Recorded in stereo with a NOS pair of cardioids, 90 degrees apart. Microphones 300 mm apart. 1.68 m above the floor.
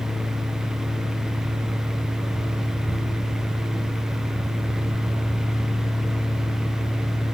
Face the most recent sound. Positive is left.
turn(degrees=0)